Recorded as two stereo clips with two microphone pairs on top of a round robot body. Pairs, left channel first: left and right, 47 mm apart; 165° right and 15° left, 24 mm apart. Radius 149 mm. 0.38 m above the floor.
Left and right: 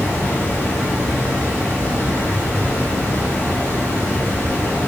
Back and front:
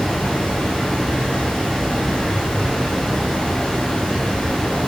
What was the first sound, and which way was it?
Running water, 130° left.